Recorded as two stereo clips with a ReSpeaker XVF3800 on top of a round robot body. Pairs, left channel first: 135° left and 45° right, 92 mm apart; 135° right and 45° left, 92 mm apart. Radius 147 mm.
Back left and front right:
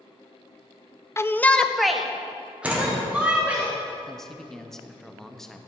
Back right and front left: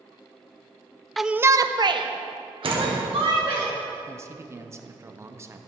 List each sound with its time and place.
1.2 s a shout: 135° left, 0.7 m; by 3.6 s 30° left, 2.5 m
2.6 s a door slam: 25° left, 1.9 m
4.1 s a man speaking: 55° left, 1.0 m